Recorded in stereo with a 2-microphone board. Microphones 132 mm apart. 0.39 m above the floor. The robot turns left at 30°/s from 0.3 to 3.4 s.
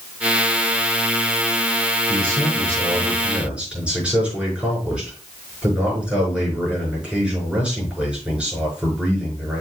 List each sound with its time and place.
2.1 s a man speaking: 135° right, 6 m; by 9.6 s 170° right, 6 m